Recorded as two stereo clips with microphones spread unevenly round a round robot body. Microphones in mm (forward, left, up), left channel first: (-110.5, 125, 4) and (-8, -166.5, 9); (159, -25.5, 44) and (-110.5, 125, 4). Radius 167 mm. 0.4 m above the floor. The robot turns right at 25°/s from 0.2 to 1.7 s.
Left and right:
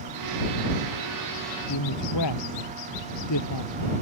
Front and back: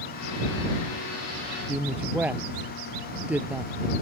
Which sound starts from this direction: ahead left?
A woman speaking, at 1.7 s.